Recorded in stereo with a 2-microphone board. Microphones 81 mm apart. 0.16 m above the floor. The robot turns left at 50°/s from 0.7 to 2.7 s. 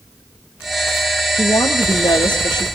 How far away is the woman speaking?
About 3.5 m.